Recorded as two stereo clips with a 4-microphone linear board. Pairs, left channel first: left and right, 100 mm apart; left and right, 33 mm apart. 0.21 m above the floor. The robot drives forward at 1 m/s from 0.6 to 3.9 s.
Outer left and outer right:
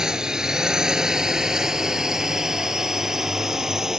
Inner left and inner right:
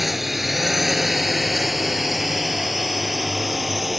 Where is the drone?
5° right (ahead or behind).